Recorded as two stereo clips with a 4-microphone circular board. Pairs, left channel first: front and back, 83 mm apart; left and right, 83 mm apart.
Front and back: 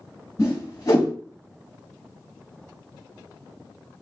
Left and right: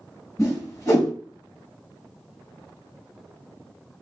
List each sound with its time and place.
0.4 s a whoosh: 40° left, 1.3 m